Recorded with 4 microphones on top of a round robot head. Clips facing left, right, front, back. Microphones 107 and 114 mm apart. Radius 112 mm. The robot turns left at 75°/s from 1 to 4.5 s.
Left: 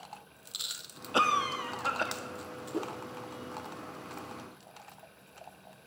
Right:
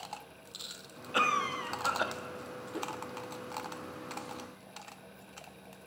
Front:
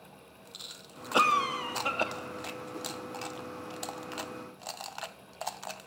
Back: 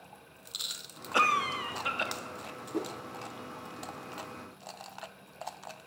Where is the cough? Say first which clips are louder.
Left 3 dB, front 2 dB; 55° left, 1.4 m; by 2.1 s 20° right, 1.4 m.